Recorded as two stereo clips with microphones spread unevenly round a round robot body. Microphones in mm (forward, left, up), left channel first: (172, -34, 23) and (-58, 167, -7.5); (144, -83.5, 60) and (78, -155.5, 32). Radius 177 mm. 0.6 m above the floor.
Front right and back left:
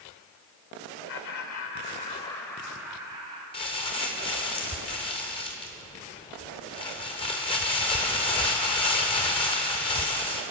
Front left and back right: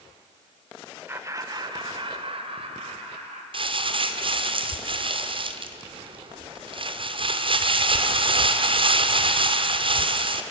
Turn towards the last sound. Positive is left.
turn(degrees=-120)